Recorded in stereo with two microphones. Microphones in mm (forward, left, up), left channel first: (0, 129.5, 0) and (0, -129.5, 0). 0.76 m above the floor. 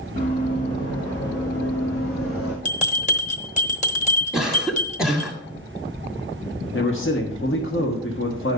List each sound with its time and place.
0.2 s running footsteps: 40° left (ahead or behind), 4.5 m; by 2.5 s 60° left (ahead or behind), 2.5 m
2.6 s a bell: 30° left (ahead or behind), 1.1 m
4.3 s a cough: 10° left (ahead or behind), 1.8 m
6.7 s a man speaking: 50° left (ahead or behind), 1.4 m